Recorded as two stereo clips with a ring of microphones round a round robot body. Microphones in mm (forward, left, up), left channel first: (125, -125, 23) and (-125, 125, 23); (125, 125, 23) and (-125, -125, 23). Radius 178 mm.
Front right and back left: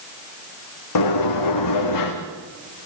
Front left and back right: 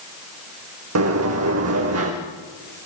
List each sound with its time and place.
0.9 s a sliding door: 85° right, 4.5 m